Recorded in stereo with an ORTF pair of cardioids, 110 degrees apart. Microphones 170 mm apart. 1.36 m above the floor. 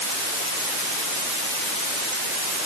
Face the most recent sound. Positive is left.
No sound to turn to.